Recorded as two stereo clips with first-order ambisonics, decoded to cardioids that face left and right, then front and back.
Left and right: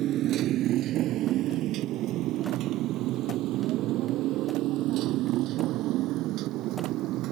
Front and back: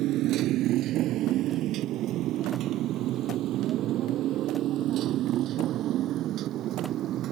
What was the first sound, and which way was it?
A motorcycle, 140° right.